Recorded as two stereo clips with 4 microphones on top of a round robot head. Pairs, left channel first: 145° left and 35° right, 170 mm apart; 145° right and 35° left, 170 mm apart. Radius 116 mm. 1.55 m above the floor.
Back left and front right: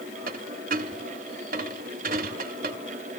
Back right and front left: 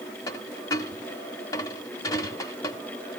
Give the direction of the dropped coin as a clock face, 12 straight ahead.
3 o'clock.